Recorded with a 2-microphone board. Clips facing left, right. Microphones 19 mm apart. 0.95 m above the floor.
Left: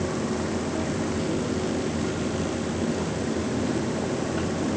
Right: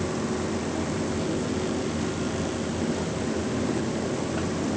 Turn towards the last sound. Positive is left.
No sound to turn to.